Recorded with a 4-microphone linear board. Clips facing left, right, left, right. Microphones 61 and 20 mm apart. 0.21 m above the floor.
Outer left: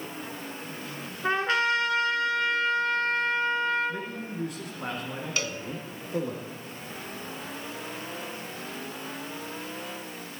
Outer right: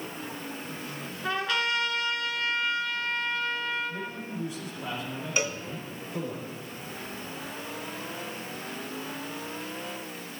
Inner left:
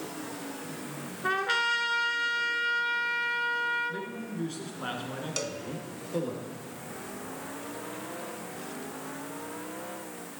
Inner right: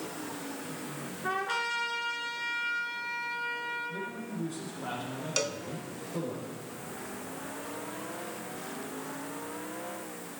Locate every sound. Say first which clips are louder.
1.2 s a trumpet: outer left 4 dB, inner left 5 dB; 30° left (ahead or behind), 1.2 m
3.9 s a man speaking: outer left 1 dB, inner left 1 dB; 60° left (ahead or behind), 2.5 m
5.4 s a cowbell: outer right 4 dB, inner right 4 dB; 20° right (ahead or behind), 0.6 m